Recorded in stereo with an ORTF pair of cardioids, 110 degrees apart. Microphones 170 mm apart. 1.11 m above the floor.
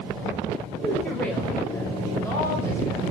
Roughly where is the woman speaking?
Ahead.